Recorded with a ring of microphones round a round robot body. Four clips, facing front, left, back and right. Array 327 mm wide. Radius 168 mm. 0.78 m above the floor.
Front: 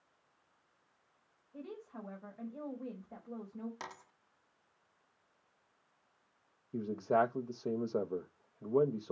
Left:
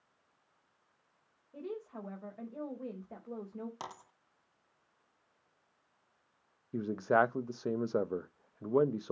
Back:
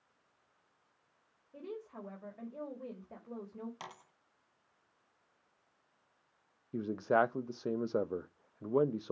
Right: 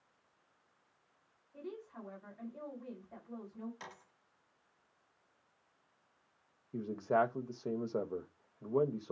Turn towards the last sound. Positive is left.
turn(degrees=115)